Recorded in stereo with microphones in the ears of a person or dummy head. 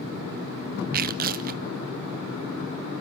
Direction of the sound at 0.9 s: 35° right (ahead or behind).